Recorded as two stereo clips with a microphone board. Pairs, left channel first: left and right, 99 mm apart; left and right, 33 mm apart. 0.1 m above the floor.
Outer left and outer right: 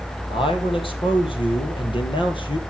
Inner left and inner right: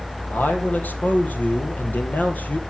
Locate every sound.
0.3 s a man speaking: 65° left (ahead or behind), 4.5 m; by 2.6 s 55° left (ahead or behind), 3 m